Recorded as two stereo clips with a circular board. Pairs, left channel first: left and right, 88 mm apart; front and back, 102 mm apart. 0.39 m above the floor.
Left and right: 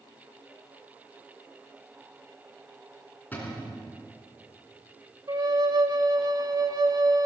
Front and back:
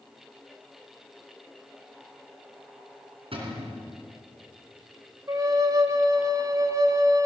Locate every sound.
3.3 s a cupboard door: 160° left, 3.5 m
5.3 s a flute: 125° right, 0.8 m